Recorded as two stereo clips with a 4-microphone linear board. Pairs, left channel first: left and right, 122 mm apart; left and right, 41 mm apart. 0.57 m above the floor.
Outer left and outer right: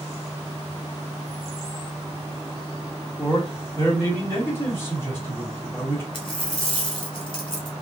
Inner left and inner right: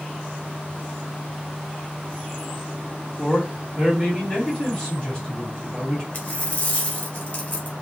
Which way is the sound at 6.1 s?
45° left (ahead or behind).